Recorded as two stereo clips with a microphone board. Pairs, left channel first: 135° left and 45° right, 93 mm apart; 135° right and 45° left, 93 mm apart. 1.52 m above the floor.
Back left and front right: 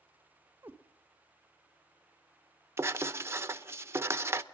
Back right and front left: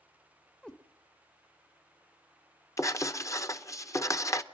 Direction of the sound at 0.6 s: 70° right.